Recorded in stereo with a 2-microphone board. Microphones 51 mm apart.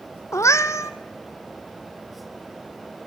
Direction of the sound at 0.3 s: 85° left.